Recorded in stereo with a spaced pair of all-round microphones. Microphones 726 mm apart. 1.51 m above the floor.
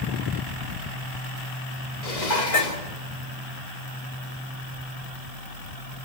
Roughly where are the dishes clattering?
Left.